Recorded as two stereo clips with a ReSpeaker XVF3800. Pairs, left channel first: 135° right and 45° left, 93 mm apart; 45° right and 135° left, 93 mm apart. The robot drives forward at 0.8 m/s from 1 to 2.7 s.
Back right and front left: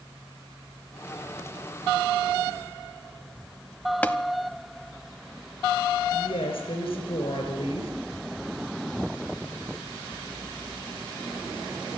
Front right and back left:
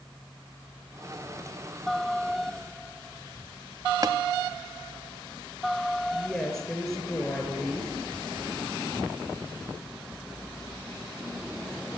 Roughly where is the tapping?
Behind left.